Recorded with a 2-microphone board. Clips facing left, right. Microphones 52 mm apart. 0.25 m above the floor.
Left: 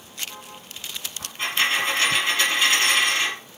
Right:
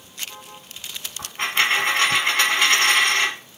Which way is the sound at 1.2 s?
55° right (ahead or behind).